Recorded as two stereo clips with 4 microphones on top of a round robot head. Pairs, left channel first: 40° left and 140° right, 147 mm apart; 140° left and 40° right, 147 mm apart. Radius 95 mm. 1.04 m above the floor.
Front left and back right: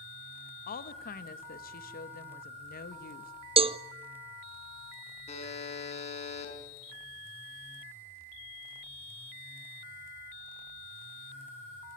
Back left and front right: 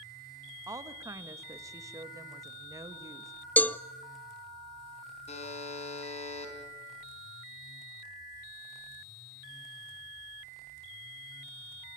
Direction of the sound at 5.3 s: 90° left.